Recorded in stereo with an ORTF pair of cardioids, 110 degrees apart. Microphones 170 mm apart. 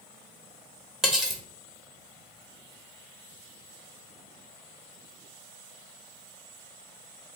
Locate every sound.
1.0 s cutlery clinking: straight ahead, 0.8 m